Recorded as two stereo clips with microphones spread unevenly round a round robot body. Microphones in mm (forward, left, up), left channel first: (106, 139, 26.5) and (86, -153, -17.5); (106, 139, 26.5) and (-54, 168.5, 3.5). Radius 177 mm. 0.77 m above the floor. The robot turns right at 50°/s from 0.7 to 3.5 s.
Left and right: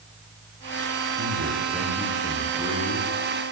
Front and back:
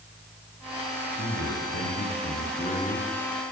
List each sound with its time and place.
1.2 s a man speaking: 50° right, 10 m; by 3.1 s 45° left, 10 m